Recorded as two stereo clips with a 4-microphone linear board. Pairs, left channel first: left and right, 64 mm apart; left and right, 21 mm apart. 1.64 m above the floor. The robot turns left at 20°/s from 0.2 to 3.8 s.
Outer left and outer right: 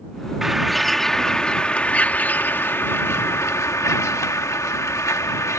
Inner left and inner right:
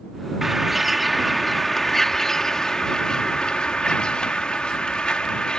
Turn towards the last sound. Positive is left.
turn(degrees=120)